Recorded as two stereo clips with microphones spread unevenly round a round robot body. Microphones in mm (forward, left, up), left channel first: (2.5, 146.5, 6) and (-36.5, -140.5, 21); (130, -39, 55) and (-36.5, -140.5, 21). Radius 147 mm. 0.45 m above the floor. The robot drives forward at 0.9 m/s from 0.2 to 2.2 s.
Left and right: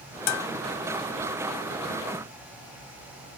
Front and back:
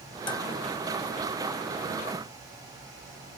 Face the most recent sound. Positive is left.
turn(degrees=140)